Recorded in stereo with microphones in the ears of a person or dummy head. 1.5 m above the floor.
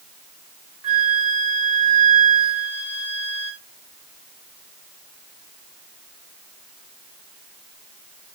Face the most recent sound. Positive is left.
turn(degrees=-5)  # may be behind; listen again after turning